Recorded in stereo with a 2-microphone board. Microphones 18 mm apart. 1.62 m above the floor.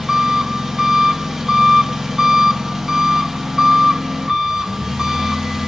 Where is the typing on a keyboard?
I don't hear typing on a keyboard.